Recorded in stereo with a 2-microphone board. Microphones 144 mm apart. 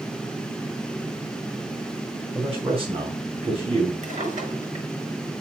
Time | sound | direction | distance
2.3 | a man speaking | 40° right (ahead or behind) | 3.5 m
4.0 | a drawer | 60° right (ahead or behind) | 6 m